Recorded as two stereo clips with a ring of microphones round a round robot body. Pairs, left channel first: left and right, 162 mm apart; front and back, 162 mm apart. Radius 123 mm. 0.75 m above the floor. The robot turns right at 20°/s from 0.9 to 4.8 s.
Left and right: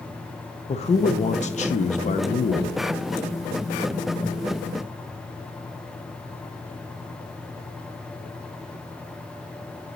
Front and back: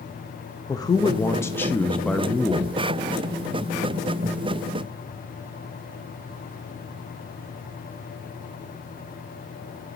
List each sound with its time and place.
0.7 s a man speaking: 60° left, 0.6 m; by 2.8 s 95° left, 0.6 m